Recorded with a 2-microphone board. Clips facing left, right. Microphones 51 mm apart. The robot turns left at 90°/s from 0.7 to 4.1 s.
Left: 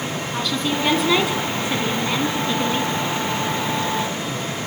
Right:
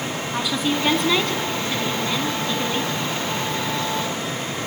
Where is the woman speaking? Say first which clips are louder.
Right 1 dB; 10° right (ahead or behind), 1.4 m; by 2.9 s centre (ahead or behind), 1.4 m.